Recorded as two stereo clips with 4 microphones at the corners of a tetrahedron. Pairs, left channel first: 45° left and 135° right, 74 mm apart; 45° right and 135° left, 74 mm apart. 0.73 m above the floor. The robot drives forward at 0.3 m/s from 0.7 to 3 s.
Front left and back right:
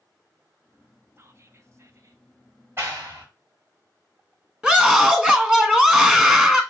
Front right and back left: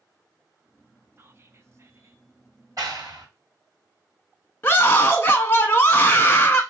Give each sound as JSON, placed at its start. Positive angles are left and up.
{"t": 1.2, "sound": "whispering", "azimuth_deg": 180, "distance_m": 0.6}
{"t": 2.8, "sound": "a clap", "azimuth_deg": 170, "distance_m": 2.5}
{"t": 4.6, "sound": "a scream", "azimuth_deg": -70, "distance_m": 1.0}